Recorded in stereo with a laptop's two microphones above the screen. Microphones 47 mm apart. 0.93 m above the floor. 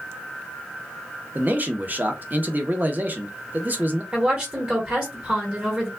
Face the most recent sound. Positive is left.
turn(degrees=-25)  # may be behind; listen again after turning